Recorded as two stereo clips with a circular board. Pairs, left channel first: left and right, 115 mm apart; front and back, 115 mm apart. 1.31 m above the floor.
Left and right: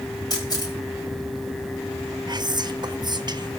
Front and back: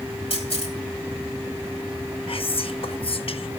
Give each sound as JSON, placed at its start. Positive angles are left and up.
{"t": 0.3, "sound": "a camera shutter", "azimuth_deg": 35, "distance_m": 7.5}
{"t": 2.3, "sound": "whispering", "azimuth_deg": -40, "distance_m": 0.9}